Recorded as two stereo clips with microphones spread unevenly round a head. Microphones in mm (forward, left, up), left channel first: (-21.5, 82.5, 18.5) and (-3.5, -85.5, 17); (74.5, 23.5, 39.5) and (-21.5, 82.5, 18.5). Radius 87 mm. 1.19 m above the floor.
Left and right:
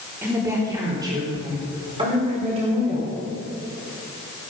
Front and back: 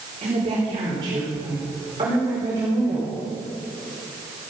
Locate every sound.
0.2 s a woman speaking: 160° right, 3.5 m; by 3.1 s 135° right, 5 m